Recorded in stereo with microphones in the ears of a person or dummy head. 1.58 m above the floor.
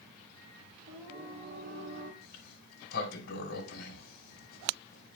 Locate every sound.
0.9 s singing: 40° right (ahead or behind), 4 m
2.2 s a sliding door: 60° left (ahead or behind), 2.5 m